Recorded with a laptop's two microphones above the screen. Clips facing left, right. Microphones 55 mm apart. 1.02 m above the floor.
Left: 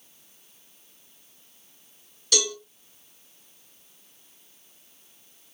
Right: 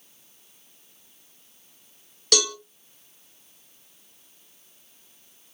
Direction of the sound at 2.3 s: 60° right (ahead or behind).